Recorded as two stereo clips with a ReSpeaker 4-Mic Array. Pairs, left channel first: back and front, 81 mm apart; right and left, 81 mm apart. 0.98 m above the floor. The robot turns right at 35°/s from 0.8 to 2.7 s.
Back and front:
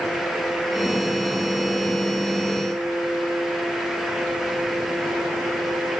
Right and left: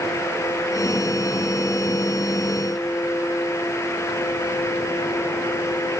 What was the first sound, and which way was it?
Only background noise.